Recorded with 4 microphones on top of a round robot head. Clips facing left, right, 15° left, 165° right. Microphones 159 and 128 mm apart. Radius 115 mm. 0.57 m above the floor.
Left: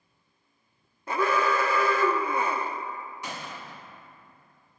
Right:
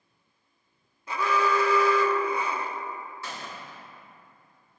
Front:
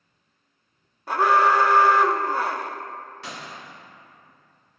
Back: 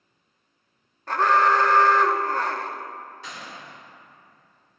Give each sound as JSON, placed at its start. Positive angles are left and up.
{"t": 1.1, "sound": "an alarm", "azimuth_deg": 90, "distance_m": 1.1}
{"t": 3.2, "sound": "a gunshot", "azimuth_deg": 20, "distance_m": 3.0}